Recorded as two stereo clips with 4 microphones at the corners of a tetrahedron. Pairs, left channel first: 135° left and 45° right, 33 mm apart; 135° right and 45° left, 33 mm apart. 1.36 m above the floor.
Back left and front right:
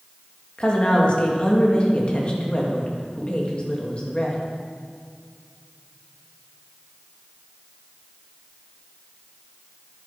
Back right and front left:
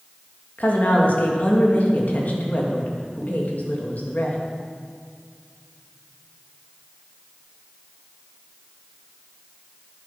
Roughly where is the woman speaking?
Behind.